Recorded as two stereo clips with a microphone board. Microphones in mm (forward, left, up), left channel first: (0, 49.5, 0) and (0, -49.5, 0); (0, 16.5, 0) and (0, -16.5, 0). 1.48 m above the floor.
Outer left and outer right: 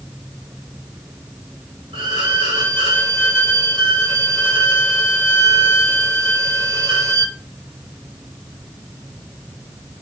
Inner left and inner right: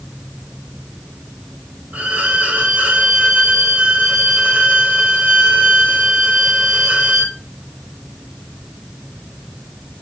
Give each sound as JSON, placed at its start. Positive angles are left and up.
{"t": 1.9, "sound": "a violin", "side_deg": -65, "distance_m": 2.0}